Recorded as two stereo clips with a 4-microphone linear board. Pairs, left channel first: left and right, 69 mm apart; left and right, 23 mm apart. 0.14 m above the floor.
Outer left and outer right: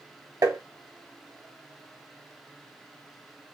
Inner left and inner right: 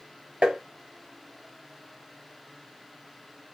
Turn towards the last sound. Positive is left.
turn(degrees=-60)  # may be behind; listen again after turning